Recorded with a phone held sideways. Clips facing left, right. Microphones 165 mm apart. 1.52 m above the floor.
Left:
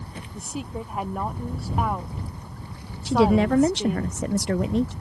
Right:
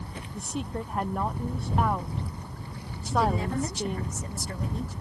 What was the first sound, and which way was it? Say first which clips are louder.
A woman speaking: even; 5° left (ahead or behind).